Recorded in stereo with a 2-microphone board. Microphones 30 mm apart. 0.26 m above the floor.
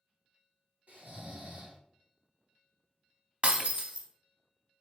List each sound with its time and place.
0.9 s snoring: 50° right (ahead or behind), 2.0 m
3.4 s breaking glass: 40° right (ahead or behind), 0.6 m